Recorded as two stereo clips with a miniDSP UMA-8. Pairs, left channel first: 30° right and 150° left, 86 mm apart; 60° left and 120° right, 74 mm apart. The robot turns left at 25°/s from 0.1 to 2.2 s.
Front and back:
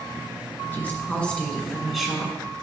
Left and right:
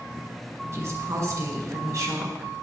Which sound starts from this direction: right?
A woman speaking, at 0.7 s.